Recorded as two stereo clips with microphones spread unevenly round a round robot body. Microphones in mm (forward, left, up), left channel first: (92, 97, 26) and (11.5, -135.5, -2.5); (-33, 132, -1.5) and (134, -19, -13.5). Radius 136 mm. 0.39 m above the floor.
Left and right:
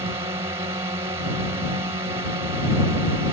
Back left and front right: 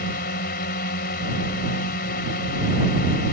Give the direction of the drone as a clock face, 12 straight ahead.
6 o'clock.